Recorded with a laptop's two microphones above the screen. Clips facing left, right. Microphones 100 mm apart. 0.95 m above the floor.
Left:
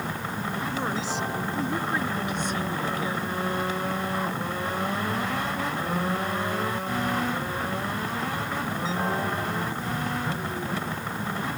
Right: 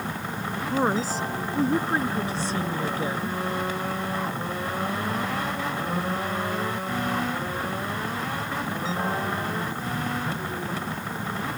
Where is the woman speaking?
45° right (ahead or behind); by 3.4 s 30° right (ahead or behind).